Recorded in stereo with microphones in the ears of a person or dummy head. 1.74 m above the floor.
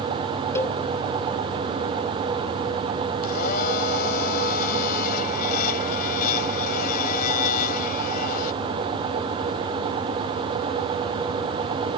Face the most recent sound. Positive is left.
turn(degrees=55)  # may be behind; listen again after turning